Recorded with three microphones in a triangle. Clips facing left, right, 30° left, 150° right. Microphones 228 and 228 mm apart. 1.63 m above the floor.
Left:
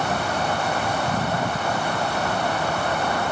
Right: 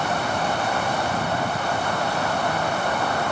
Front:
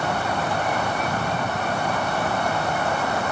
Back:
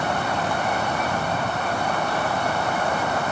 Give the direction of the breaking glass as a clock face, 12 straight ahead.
No breaking glass in this recording.